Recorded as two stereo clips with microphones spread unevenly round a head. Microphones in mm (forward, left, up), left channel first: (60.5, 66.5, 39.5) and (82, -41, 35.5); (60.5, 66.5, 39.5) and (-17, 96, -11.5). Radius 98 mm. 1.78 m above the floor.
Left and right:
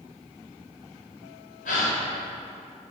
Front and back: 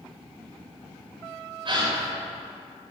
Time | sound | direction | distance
1.6 | a gasp | 130° left | 9 m